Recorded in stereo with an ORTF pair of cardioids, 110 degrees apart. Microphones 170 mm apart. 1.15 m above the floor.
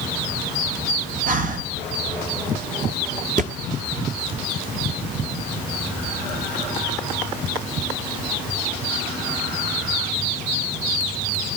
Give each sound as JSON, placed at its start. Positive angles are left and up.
{"t": 1.3, "sound": "breathing", "azimuth_deg": -55, "distance_m": 0.9}
{"t": 3.4, "sound": "a thud", "azimuth_deg": -50, "distance_m": 1.5}